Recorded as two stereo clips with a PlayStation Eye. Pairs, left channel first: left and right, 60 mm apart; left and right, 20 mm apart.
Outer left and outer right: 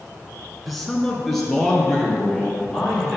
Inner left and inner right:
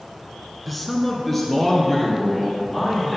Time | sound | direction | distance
0.7 | a man speaking | centre (ahead or behind) | 1.1 m